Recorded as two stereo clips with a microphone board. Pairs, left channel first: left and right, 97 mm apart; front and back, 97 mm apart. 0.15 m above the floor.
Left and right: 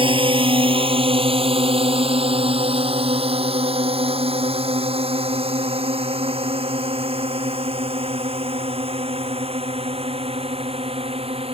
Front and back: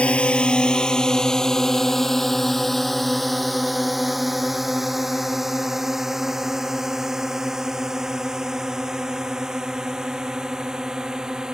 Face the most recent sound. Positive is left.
turn(degrees=-95)